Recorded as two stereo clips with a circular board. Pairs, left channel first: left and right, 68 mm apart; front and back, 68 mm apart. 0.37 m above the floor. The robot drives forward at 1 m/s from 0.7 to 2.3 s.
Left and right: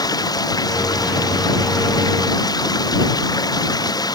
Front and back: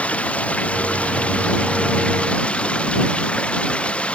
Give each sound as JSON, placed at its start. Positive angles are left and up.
{"t": 0.0, "sound": "running water", "azimuth_deg": 70}